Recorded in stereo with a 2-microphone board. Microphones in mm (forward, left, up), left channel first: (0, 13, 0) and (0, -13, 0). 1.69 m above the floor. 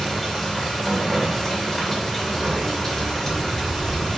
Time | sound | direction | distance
0.0 | running water | 15° left (ahead or behind) | 3 m